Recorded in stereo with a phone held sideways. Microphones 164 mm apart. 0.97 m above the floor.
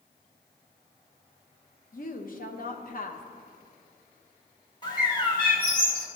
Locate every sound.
1.9 s a woman speaking: 55° left (ahead or behind), 0.9 m
4.8 s a bird: 25° left (ahead or behind), 1.7 m